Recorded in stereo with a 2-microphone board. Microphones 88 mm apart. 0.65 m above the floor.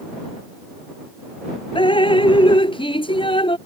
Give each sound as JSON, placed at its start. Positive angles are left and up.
{"t": 1.8, "sound": "dripping", "side_deg": 75}